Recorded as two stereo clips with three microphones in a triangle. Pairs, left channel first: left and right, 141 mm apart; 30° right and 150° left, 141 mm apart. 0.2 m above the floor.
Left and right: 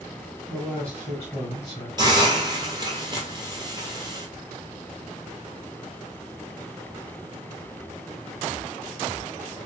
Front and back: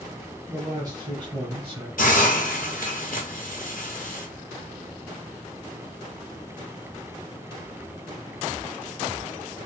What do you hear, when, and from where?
0.5 s a man speaking: 170° left, 1.6 m; by 1.9 s 130° left, 1.9 m
2.0 s a hiss: 30° right, 1.2 m